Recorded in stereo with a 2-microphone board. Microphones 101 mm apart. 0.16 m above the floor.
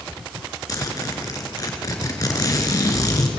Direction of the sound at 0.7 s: 40° left (ahead or behind).